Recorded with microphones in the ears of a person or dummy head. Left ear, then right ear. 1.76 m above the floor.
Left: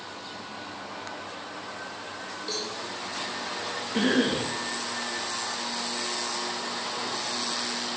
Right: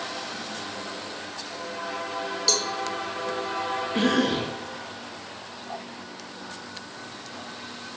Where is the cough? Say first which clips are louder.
Even; 15° left (ahead or behind), 2.5 m.